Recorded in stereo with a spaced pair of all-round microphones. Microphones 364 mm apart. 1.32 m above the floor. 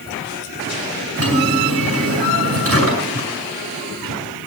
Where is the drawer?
40° right (ahead or behind), 6.5 m.